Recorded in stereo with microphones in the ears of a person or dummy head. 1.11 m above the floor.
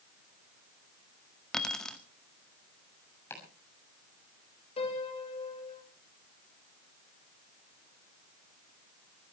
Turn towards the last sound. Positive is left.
turn(degrees=30)  # may be behind; listen again after turning